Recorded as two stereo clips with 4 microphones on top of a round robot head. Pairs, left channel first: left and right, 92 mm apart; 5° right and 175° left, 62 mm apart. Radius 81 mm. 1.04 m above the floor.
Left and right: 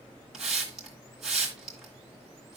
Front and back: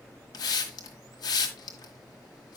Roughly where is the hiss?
Ahead.